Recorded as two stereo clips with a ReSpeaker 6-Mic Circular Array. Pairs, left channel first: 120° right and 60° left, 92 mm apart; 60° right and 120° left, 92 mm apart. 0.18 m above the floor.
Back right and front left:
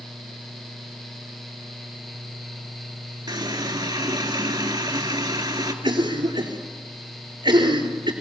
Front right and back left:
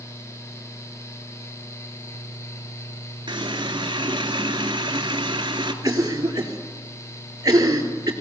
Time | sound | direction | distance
3.3 | a running tap | 95° left | 2.0 m
5.8 | a cough | 75° left | 3.5 m